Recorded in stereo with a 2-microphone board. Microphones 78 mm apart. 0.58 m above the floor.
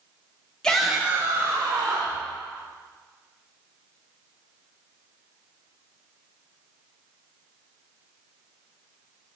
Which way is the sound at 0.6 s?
10° left (ahead or behind).